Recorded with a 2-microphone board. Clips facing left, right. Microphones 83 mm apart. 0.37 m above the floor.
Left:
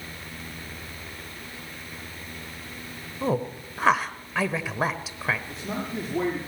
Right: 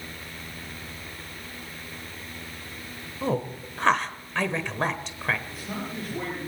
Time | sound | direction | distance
3.2 | a woman speaking | 5° left (ahead or behind) | 1.1 m
5.5 | a man speaking | 35° left (ahead or behind) | 7.5 m